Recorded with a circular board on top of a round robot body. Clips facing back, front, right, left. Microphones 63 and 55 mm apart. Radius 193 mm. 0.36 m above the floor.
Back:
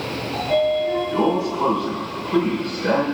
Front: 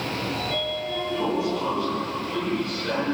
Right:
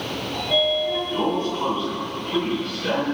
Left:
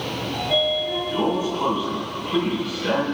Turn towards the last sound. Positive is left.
turn(degrees=170)